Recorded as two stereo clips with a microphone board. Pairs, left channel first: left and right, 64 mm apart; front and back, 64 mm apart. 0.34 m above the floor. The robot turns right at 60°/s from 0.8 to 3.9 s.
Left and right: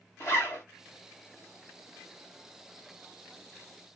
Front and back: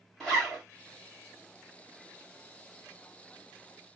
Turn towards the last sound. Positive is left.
turn(degrees=-100)